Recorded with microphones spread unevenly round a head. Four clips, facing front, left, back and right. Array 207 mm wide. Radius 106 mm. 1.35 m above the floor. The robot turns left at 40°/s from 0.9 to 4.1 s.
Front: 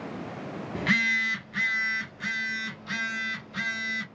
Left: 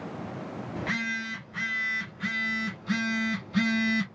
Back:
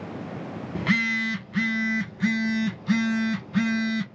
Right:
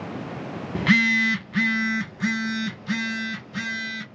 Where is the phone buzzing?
85° right, 1.1 m; by 4.0 s 150° left, 1.1 m.